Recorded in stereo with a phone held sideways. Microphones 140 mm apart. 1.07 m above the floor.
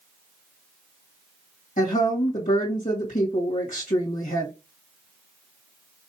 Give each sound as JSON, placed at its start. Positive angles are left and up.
{"t": 1.8, "sound": "a woman speaking", "side_deg": 65, "distance_m": 1.7}